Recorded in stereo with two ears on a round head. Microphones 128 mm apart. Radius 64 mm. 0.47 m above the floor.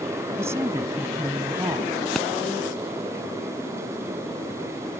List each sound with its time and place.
0.4 s a woman speaking: 20° right (ahead or behind)
2.1 s a pop: centre (ahead or behind)